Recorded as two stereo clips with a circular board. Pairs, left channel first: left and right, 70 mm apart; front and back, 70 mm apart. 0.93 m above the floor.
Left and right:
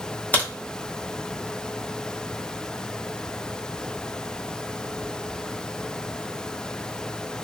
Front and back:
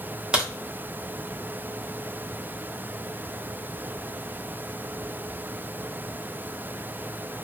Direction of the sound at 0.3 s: 120° left.